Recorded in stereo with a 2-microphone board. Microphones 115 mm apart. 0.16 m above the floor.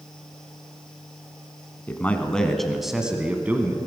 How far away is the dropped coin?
I don't hear a dropped coin.